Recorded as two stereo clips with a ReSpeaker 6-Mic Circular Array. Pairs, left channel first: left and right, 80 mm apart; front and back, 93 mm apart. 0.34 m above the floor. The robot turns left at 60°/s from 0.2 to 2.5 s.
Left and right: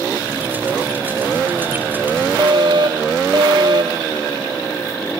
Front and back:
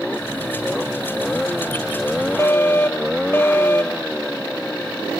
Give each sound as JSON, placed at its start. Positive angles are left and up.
{"t": 2.4, "sound": "a fire alarm", "azimuth_deg": -60}